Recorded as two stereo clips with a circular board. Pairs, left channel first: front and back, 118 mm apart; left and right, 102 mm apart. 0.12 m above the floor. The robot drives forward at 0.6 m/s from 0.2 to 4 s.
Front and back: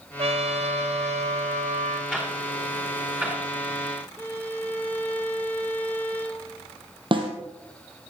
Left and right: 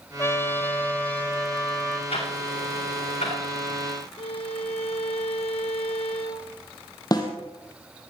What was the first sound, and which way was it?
A trumpet, 150° left.